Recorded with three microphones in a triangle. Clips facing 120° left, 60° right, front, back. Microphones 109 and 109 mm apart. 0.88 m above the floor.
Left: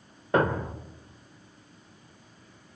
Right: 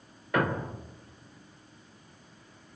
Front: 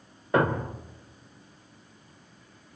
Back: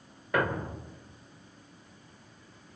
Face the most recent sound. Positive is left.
turn(degrees=60)